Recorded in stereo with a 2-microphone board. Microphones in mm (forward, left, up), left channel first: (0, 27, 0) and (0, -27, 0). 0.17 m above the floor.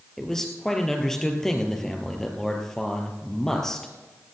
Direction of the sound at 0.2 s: 10° left (ahead or behind).